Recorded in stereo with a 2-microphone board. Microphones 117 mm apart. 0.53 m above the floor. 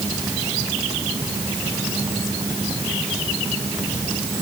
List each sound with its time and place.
Only background noise.